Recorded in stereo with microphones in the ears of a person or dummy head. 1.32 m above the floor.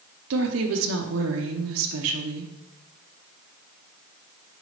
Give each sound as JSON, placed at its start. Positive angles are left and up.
{"t": 0.3, "sound": "a woman speaking", "side_deg": -75, "distance_m": 0.7}